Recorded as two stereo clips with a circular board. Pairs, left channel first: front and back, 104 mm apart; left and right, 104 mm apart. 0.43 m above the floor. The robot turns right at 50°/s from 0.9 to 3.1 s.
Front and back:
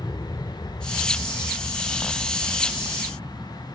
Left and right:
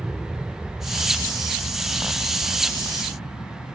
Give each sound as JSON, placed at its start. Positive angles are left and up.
{"t": 0.0, "sound": "an aircraft", "azimuth_deg": -5}